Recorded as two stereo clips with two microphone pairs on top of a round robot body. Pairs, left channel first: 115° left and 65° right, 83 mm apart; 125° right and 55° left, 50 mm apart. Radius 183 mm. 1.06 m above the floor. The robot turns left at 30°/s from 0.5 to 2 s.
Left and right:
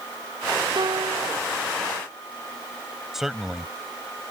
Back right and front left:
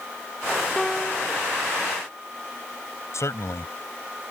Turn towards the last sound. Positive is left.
turn(degrees=-150)